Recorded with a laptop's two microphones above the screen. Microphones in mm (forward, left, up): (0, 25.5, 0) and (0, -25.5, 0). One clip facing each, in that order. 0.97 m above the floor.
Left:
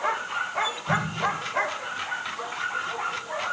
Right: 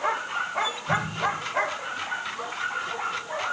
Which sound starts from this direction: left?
An explosion, at 0.9 s.